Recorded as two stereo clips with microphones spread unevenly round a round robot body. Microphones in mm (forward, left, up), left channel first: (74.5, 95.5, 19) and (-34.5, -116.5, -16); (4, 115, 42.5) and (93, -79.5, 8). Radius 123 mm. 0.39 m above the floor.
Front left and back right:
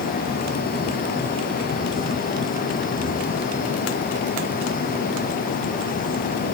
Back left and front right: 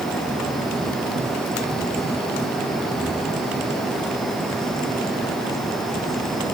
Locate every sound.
Only background noise.